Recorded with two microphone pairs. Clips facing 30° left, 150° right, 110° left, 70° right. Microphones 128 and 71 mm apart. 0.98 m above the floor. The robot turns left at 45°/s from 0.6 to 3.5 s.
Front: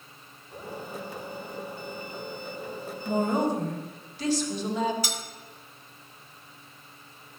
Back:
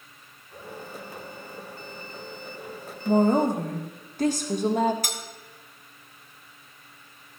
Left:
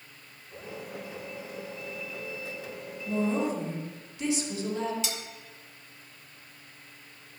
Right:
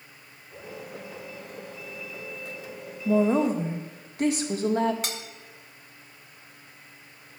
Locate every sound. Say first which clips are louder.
3.0 s a woman speaking: back 5 dB, right 6 dB; 90° right, 1.8 m; by 4.9 s 115° right, 1.8 m
5.0 s cutlery clinking: even, right 1 dB; 115° right, 1.0 m